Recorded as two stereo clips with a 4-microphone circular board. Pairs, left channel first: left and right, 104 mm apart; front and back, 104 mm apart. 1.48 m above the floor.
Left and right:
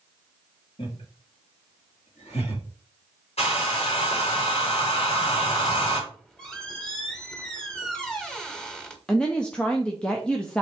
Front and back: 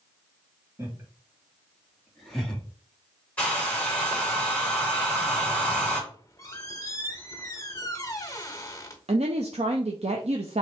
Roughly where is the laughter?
Behind left.